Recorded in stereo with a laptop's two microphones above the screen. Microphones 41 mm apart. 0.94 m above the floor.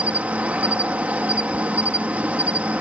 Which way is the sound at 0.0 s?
40° right (ahead or behind).